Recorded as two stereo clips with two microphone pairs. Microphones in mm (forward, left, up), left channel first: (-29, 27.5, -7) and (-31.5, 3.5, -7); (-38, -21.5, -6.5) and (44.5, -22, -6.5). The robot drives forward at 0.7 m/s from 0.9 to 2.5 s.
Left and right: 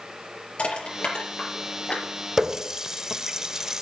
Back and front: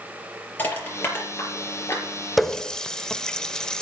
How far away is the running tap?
About 0.5 m.